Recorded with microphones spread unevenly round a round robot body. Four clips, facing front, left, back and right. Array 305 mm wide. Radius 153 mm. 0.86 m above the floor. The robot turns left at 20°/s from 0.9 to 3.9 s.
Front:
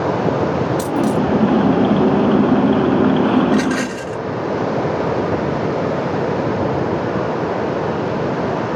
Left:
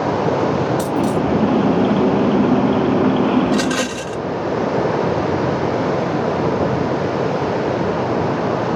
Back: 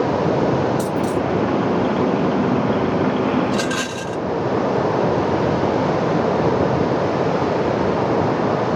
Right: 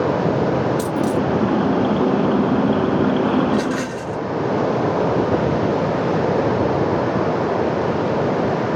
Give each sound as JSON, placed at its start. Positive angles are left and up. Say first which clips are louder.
{"t": 0.8, "sound": "a dropped coin", "louder": "left 2 dB, front 3 dB", "azimuth_deg": 10, "distance_m": 1.2}
{"t": 3.5, "sound": "a rattle", "louder": "left 2 dB, front 4 dB", "azimuth_deg": 90, "distance_m": 0.5}